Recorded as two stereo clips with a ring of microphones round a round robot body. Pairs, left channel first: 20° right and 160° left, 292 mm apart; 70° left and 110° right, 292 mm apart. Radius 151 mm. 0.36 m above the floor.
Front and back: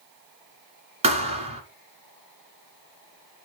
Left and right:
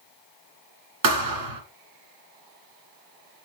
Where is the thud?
130° right, 1.7 m.